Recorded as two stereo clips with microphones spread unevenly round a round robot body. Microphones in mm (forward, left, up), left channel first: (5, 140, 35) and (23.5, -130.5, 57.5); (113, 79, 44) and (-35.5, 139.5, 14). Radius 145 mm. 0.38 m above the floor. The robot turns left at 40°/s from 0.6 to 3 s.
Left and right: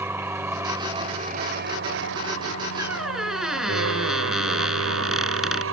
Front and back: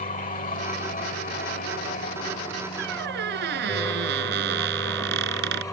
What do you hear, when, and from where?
0.0 s an aircraft: 5° right; by 5.7 s 100° right
2.8 s a squeak: 165° right; by 5.6 s 175° right